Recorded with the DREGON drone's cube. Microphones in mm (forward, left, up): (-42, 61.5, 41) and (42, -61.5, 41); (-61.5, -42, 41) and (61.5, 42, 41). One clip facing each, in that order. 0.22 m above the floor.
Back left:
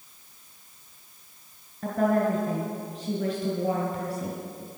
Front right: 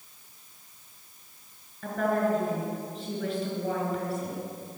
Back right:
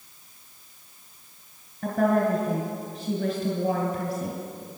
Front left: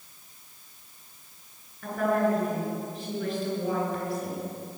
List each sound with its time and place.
1.8 s a woman speaking: 170° left, 3 m